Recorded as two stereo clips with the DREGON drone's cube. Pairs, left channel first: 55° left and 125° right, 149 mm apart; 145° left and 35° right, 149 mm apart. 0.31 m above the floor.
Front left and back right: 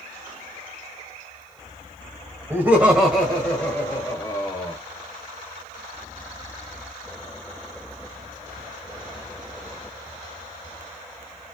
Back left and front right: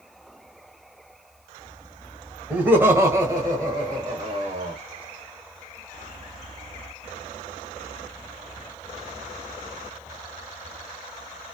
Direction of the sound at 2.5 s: 90° right.